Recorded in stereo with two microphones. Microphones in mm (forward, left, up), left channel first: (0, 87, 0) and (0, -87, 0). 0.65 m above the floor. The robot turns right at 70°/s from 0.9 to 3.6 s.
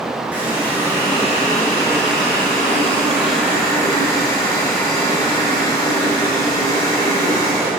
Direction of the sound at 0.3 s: 170° right.